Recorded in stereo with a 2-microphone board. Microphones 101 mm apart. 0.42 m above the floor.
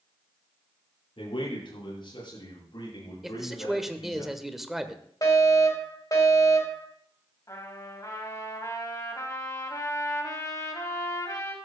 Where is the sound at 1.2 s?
60° left (ahead or behind), 9 m; by 4.2 s 45° left (ahead or behind), 9 m.